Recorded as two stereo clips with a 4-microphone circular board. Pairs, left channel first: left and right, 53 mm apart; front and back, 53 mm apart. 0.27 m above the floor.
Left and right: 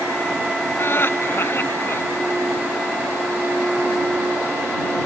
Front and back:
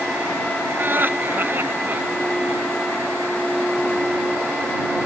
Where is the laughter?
135° left.